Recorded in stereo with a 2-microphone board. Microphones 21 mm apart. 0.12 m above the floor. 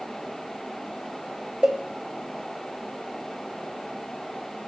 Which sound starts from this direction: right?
A cowbell, at 1.6 s.